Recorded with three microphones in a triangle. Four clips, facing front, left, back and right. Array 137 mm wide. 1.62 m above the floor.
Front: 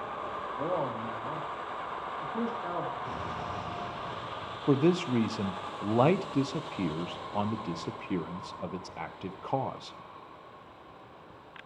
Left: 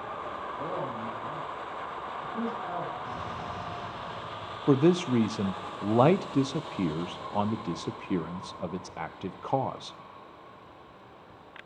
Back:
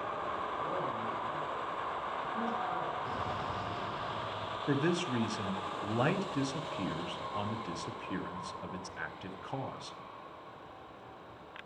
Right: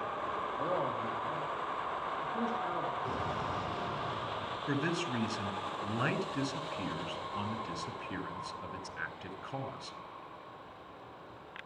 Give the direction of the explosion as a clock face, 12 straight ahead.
3 o'clock.